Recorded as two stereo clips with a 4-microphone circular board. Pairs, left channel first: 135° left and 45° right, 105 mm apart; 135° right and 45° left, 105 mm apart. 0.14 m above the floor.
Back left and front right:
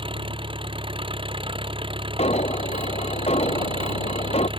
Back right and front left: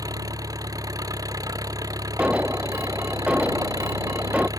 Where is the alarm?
125° left.